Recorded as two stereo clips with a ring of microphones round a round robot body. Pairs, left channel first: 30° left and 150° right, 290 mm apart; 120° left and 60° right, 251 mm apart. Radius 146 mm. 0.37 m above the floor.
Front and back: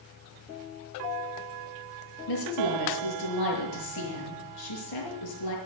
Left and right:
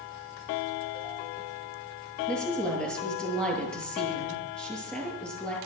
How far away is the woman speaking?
About 6.5 m.